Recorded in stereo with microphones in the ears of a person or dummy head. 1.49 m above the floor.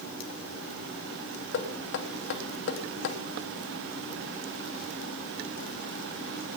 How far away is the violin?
No violin in this recording.